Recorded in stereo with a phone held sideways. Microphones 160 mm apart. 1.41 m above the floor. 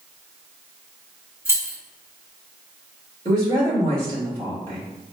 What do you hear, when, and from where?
1.4 s keys jangling: 15° right (ahead or behind), 1.2 m
3.2 s a woman speaking: 30° right (ahead or behind), 1.9 m